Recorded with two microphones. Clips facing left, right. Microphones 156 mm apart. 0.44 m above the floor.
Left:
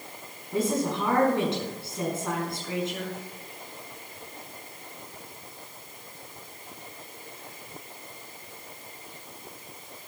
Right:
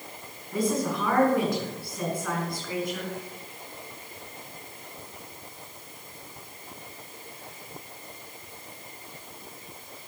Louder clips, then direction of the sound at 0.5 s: Even; 25° left (ahead or behind).